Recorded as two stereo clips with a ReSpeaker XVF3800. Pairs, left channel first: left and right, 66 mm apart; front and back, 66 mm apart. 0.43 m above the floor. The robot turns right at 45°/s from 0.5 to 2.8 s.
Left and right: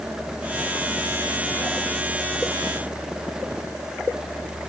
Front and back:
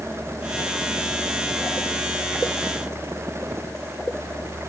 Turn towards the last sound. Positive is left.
No sound to turn to.